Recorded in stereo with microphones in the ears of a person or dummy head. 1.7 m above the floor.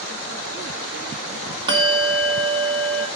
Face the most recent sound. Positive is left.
turn(degrees=-25)  # may be behind; listen again after turning